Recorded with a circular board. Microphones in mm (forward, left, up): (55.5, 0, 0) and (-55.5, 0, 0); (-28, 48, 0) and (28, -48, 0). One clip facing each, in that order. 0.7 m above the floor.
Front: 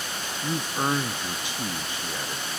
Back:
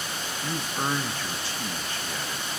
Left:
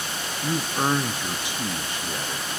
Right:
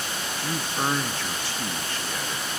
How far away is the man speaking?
About 0.6 m.